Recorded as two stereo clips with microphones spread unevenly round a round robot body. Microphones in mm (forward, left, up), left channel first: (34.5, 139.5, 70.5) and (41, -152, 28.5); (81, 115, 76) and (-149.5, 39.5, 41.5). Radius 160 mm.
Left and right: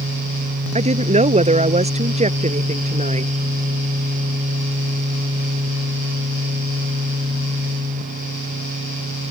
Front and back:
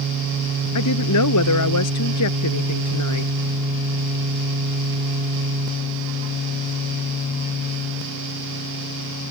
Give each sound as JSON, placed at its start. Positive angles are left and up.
{"t": 0.8, "sound": "a woman speaking", "azimuth_deg": -20}